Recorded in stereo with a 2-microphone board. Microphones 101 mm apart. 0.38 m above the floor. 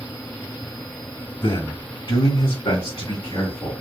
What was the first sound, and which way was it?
A man speaking, 55° left (ahead or behind).